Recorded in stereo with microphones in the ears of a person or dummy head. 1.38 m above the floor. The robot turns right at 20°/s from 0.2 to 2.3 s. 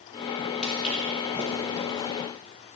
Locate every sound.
0.6 s footsteps: centre (ahead or behind), 2.5 m; by 2.0 s 25° right (ahead or behind), 4 m